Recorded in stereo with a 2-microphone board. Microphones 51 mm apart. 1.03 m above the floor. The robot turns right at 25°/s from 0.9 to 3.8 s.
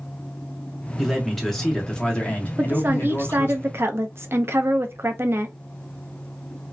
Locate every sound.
1.0 s a man speaking: 5° right, 1.2 m; by 3.6 s 60° left, 1.2 m
2.6 s a woman speaking: 135° right, 0.6 m; by 5.5 s 105° right, 0.6 m